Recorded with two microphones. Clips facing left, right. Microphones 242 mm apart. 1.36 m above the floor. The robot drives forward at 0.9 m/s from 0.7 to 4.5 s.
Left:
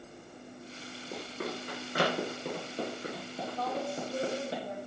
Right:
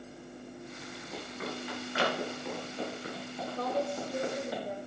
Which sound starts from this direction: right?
A woman speaking, at 3.6 s.